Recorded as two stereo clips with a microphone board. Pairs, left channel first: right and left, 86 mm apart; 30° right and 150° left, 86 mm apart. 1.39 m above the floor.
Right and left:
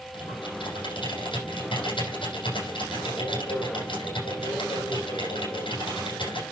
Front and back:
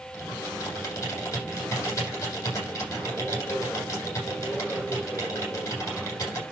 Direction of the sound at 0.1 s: 80° right.